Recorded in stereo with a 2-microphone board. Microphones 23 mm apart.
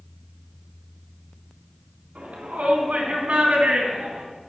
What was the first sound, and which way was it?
A shout, 75° right (ahead or behind).